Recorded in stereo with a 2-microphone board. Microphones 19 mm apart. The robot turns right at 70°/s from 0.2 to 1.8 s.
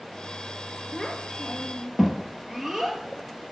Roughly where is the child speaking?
Left.